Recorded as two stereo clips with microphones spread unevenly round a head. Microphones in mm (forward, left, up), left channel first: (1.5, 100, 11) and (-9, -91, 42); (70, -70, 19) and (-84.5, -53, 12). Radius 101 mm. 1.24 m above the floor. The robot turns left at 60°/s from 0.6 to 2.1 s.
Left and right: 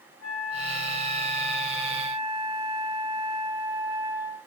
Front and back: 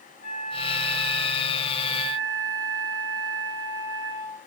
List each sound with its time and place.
0.2 s a flute: 55° left, 4.5 m; by 4.4 s 35° right, 4.5 m